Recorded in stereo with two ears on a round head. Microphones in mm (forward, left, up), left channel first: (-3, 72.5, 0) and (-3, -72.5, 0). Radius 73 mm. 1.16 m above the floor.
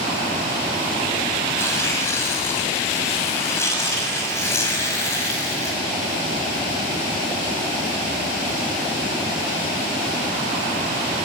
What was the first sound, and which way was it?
Tearing paper, 15° left (ahead or behind).